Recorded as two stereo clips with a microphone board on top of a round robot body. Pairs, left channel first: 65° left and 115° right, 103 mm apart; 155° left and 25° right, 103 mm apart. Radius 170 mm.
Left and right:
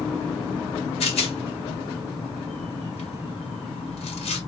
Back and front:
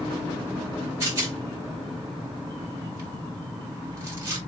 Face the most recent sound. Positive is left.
turn(degrees=45)